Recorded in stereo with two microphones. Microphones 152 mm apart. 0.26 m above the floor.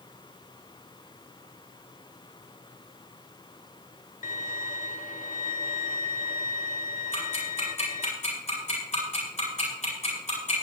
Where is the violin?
60° left (ahead or behind), 0.7 m.